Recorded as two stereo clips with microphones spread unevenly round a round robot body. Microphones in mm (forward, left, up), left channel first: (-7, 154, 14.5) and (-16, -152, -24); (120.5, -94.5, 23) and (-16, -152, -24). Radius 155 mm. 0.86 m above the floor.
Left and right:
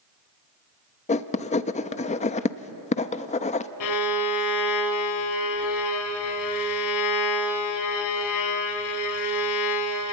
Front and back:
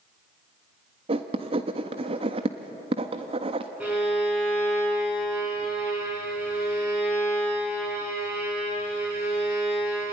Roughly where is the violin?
Left.